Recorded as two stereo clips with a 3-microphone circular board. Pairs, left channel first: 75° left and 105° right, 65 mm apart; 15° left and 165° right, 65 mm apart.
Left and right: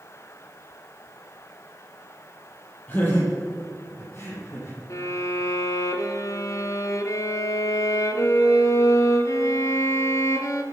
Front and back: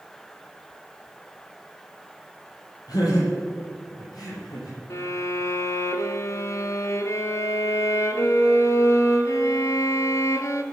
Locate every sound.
2.9 s laughter: 15° left, 5 m; by 4.8 s 25° left, 7 m
4.9 s a violin: 50° left, 1.2 m